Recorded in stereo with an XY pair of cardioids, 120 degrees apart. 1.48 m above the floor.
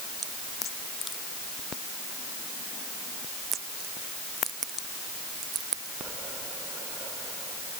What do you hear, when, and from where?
Only background noise.